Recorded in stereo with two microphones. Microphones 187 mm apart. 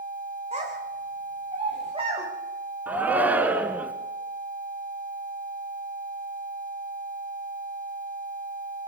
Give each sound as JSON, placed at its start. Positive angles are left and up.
{"t": 0.5, "sound": "a child speaking", "side_deg": -35, "distance_m": 9.5}
{"t": 2.9, "sound": "a shout", "side_deg": -10, "distance_m": 1.8}